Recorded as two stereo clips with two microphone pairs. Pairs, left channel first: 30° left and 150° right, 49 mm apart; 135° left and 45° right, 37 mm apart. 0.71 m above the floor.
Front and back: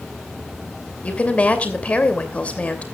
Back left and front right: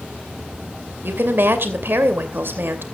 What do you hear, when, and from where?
1.0 s a woman speaking: 35° right, 2.5 m